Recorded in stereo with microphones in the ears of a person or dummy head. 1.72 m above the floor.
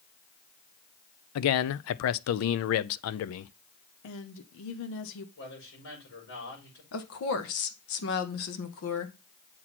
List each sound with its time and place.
1.4 s a man speaking: 70° left (ahead or behind), 0.5 m
4.0 s a woman speaking: 65° left (ahead or behind), 0.9 m
5.4 s a man speaking: 70° left (ahead or behind), 6 m
6.9 s a woman speaking: 70° left (ahead or behind), 1.5 m